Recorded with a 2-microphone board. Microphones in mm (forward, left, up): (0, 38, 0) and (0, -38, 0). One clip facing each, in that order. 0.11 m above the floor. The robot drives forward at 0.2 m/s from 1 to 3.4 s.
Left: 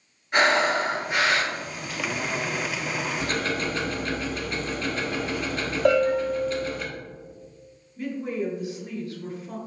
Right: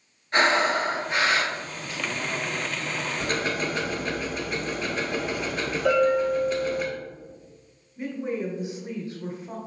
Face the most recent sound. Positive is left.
turn(degrees=-20)  # may be behind; listen again after turning